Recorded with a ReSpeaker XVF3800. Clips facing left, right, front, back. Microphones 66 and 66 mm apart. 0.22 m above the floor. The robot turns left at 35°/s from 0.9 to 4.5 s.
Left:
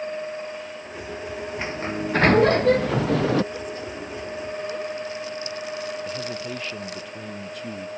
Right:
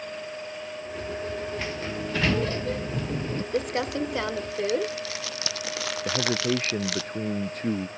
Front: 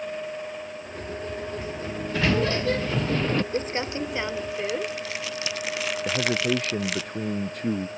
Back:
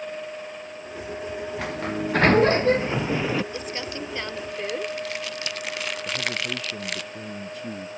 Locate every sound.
1.6 s a sliding door: 155° left; by 3.4 s 95° left
3.5 s crumpling: 55° right; by 7.0 s 90° right
6.0 s a man speaking: 40° right